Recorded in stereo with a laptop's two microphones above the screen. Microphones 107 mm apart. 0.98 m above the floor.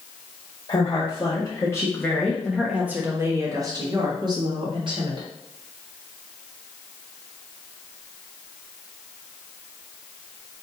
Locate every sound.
0.7 s a woman speaking: 50° left (ahead or behind), 1.2 m; by 5.3 s 50° right (ahead or behind), 1.7 m